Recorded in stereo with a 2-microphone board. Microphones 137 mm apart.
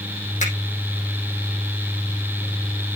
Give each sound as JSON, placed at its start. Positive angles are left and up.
{"t": 0.4, "sound": "a finger snap", "side_deg": 65, "distance_m": 5.0}